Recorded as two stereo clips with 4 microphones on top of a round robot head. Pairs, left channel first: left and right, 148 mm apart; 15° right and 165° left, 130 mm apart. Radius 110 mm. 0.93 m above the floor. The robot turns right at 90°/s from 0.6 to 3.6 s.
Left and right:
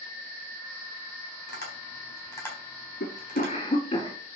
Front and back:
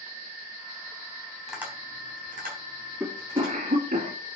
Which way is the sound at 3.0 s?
85° left.